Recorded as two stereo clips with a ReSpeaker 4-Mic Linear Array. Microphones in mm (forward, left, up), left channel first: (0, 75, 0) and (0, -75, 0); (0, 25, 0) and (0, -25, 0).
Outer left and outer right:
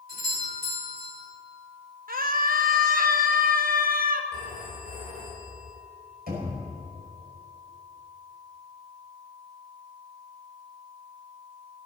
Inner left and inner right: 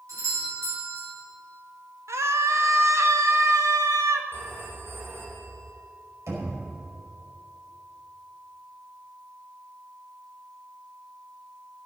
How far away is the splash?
I don't hear a splash.